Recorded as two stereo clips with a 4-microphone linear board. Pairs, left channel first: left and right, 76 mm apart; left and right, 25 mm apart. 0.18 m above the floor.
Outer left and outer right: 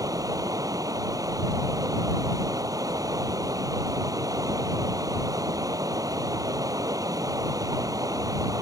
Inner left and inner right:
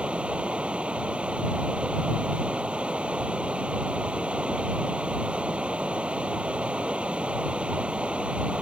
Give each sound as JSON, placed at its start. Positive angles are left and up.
{"t": 0.0, "sound": "running water", "side_deg": -50}